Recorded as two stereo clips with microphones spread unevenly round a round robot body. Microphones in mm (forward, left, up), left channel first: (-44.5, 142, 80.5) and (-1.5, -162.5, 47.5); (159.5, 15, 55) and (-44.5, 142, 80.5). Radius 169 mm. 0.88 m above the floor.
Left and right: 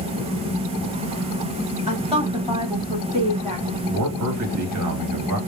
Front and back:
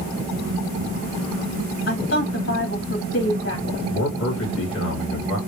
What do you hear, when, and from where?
1.9 s a woman speaking: 5° right, 1.8 m
3.9 s a man speaking: 55° right, 1.9 m